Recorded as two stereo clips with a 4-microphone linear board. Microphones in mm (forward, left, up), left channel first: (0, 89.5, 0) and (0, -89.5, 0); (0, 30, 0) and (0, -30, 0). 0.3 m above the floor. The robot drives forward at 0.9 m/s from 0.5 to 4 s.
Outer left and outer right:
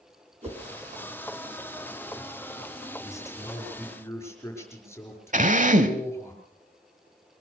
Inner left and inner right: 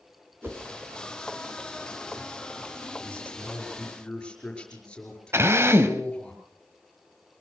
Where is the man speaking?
15° left (ahead or behind), 4.5 m.